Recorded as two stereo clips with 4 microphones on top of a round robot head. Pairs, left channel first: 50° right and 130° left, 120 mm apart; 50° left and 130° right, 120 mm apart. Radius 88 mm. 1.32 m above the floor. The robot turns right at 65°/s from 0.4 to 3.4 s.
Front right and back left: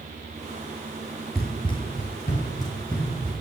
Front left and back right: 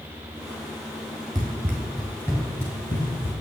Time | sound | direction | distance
1.4 | running footsteps | 125° right | 1.3 m